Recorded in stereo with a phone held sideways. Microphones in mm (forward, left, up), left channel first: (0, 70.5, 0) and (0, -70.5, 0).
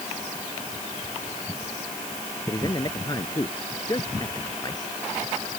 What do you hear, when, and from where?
2.5 s a man speaking: 30° left (ahead or behind)